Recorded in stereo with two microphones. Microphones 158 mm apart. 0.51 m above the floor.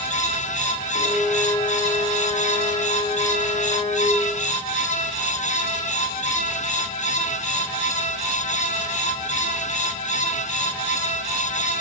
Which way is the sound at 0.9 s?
40° left (ahead or behind).